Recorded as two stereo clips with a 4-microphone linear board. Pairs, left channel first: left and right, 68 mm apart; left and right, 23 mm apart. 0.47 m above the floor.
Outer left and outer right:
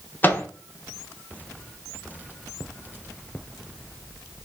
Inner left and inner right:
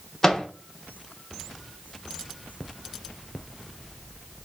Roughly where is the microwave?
Left.